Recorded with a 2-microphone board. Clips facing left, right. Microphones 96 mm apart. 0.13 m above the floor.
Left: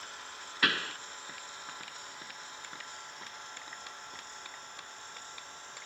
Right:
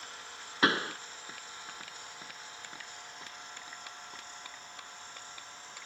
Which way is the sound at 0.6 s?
30° right (ahead or behind).